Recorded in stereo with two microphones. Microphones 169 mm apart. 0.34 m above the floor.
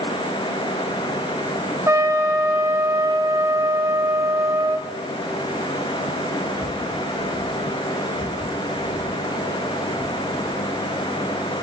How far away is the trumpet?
About 1.1 m.